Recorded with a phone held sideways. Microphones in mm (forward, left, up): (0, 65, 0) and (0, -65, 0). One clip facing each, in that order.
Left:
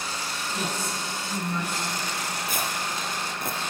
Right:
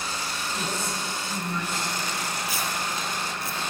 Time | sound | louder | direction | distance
0.5 | a woman speaking | left 1 dB | 15° left (ahead or behind) | 8 m
2.5 | tearing paper | even | 55° left (ahead or behind) | 4 m